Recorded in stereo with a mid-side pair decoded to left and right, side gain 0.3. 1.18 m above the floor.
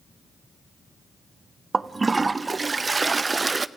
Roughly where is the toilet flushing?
Ahead right.